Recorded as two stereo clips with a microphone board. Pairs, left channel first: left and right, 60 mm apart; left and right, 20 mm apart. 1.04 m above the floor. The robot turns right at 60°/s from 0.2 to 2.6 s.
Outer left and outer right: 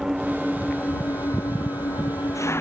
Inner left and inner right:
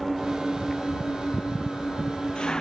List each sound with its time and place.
0.0 s an engine running: 5° right; by 2.6 s 135° left